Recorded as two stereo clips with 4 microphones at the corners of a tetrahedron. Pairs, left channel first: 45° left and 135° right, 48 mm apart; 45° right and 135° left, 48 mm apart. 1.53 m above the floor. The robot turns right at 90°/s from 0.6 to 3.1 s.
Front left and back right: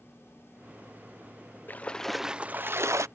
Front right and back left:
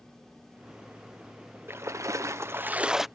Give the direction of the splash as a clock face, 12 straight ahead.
9 o'clock.